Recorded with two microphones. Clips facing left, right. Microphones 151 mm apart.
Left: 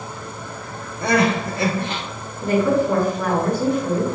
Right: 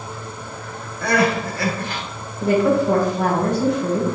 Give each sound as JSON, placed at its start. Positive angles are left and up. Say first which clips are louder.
{"t": 1.0, "sound": "crying", "louder": "even", "side_deg": 20, "distance_m": 0.9}
{"t": 2.4, "sound": "a woman speaking", "louder": "right 1 dB", "side_deg": -75, "distance_m": 1.6}